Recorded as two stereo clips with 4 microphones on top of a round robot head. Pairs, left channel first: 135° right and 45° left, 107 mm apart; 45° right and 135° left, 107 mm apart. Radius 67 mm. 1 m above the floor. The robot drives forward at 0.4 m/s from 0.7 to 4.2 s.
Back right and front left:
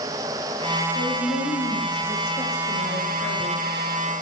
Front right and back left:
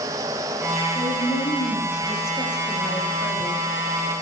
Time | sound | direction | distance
0.9 | a woman speaking | 95° right | 2 m